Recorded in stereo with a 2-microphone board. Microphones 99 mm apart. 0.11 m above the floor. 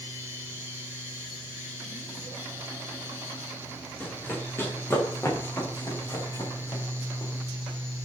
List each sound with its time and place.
4.0 s running footsteps: 15° left (ahead or behind), 8 m; by 7.3 s 45° left (ahead or behind), 9.5 m